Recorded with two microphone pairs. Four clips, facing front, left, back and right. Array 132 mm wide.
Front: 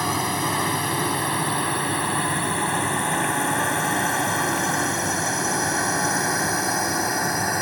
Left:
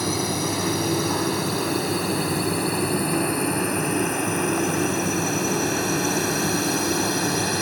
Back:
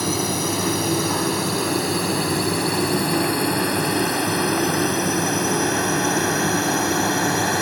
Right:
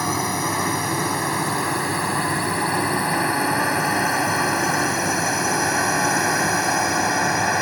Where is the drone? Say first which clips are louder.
Right 2 dB, back 1 dB; 50° right; by 7.6 s 100° right.